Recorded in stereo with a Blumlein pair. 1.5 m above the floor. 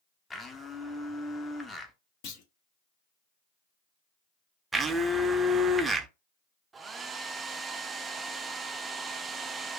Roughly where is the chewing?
I don't hear chewing.